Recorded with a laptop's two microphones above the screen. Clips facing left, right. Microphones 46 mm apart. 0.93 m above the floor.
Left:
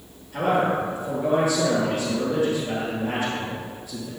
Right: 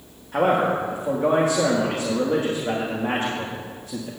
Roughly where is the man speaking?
Right.